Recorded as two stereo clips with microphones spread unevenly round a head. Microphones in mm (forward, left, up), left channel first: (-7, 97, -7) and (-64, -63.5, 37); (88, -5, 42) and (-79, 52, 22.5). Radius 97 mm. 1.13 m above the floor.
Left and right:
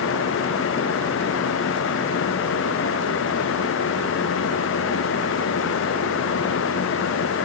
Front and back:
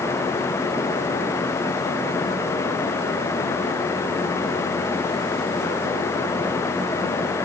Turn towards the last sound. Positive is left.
No sound to turn to.